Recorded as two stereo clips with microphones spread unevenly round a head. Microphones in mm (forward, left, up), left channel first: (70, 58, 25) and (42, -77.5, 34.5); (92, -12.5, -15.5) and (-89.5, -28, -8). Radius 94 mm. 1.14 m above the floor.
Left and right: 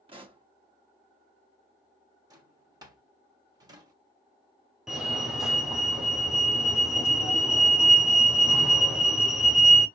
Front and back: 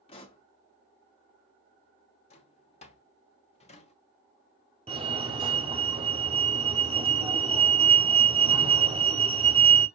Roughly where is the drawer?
Ahead right.